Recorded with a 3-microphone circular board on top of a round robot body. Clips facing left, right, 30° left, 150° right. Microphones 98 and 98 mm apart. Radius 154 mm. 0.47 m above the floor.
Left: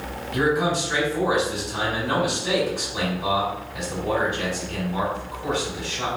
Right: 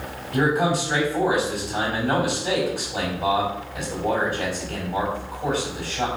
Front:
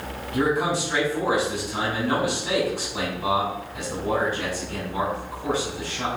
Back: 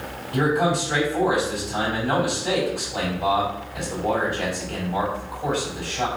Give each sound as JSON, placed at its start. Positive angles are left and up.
{"t": 0.3, "sound": "a man speaking", "azimuth_deg": -125, "distance_m": 4.0}